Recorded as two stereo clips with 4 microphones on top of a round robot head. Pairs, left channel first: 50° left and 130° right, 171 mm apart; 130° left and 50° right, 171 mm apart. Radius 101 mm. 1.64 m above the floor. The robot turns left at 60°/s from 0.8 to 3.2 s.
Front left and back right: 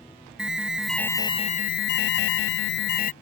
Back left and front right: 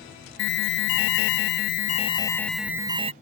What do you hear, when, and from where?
0.4 s an alarm: 145° left; by 3.1 s 5° left